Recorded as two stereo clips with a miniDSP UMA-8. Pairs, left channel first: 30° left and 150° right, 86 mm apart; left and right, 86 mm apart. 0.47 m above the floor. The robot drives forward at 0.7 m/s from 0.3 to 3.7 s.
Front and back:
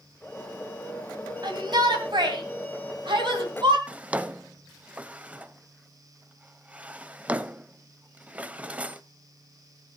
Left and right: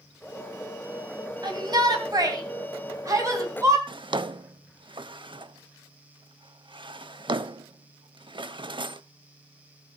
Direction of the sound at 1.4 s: 120° right.